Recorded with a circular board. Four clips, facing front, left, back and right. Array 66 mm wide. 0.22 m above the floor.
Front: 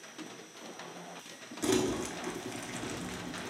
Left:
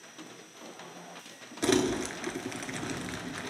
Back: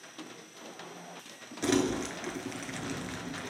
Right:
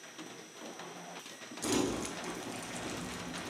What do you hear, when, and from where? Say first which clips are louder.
1.6 s crumpling: left 6 dB, back 2 dB; 100° left, 0.7 m